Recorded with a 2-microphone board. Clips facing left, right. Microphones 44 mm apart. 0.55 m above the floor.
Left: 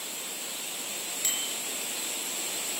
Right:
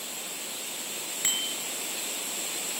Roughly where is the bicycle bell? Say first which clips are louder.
Right 4 dB; right.